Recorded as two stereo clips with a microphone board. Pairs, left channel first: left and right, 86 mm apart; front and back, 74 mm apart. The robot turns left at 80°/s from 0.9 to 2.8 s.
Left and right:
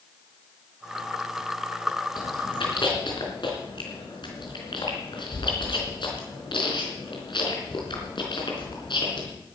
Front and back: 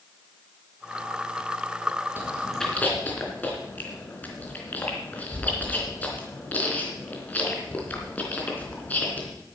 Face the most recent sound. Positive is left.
turn(degrees=70)